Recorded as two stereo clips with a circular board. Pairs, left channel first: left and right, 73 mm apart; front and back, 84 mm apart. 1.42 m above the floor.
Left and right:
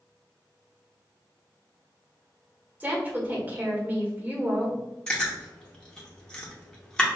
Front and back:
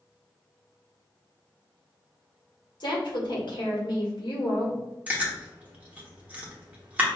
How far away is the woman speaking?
About 1.3 m.